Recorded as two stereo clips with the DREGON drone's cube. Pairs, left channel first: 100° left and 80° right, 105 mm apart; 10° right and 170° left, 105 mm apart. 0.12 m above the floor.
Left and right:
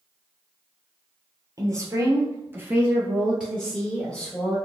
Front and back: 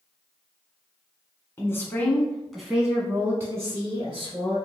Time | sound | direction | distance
1.6 | a woman speaking | 60° right | 1.3 m